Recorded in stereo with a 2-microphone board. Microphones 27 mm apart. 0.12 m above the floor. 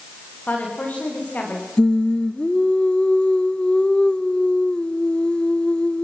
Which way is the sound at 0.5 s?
70° left (ahead or behind).